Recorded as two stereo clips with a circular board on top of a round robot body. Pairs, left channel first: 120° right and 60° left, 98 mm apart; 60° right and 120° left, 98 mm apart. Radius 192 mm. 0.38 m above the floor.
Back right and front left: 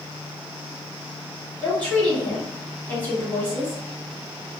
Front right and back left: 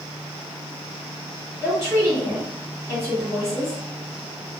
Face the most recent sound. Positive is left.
turn(degrees=175)